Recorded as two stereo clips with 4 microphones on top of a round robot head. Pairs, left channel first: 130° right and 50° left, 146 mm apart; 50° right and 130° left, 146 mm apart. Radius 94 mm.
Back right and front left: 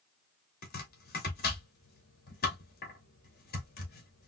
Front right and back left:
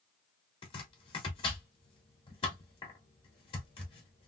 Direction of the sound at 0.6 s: 105° right.